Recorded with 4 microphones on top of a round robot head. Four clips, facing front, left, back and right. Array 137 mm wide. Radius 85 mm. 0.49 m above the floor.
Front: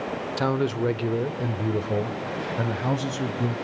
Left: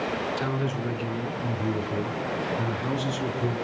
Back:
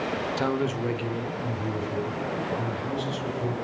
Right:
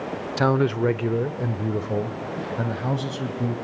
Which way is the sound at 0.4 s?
85° right.